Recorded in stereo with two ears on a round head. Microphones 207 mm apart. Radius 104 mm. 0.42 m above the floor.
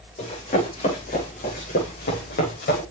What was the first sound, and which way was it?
Running footsteps, 35° left (ahead or behind).